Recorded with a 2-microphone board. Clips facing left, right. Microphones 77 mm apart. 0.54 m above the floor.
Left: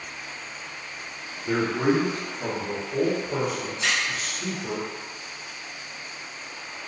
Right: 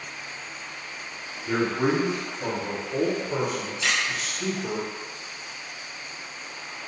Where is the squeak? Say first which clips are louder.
Even; 30° left (ahead or behind), 1.2 m.